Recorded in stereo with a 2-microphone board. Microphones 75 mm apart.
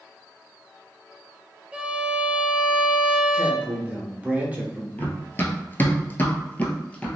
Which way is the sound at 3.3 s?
20° right (ahead or behind).